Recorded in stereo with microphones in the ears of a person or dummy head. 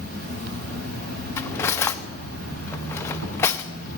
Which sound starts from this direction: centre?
Cutlery clinking, at 1.4 s.